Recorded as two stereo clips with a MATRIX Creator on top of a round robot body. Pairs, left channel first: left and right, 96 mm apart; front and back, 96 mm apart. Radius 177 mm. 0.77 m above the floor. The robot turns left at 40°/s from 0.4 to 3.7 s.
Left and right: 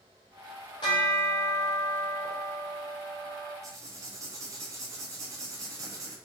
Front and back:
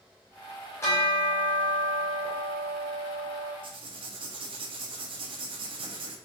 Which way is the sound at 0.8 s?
60° left.